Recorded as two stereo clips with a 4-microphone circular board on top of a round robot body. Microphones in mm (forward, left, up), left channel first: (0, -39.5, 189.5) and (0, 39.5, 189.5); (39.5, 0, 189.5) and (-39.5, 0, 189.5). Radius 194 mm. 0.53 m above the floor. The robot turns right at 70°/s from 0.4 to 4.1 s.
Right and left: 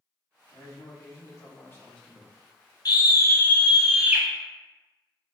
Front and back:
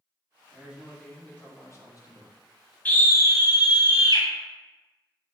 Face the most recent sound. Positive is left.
turn(degrees=20)